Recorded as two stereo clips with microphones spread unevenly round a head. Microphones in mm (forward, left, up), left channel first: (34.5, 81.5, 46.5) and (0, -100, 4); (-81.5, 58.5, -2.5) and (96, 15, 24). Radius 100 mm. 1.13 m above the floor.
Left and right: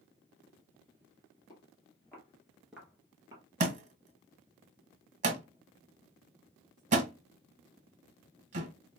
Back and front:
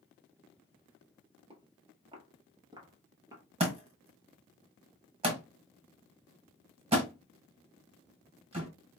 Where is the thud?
50° right, 1.2 m.